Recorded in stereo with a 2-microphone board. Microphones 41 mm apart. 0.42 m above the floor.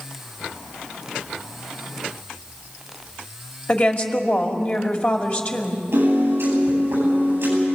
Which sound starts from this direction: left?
A woman speaking, at 3.7 s.